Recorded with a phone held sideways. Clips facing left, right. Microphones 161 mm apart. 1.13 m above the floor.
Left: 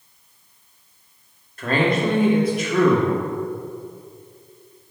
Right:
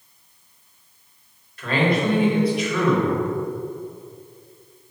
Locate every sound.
1.6 s a man speaking: 45° left (ahead or behind), 2.5 m